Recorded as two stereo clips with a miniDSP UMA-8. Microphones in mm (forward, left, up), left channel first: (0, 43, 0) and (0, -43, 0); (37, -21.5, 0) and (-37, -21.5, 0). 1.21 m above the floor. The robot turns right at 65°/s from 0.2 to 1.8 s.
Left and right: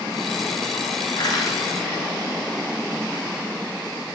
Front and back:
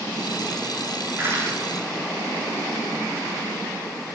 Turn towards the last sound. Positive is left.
turn(degrees=160)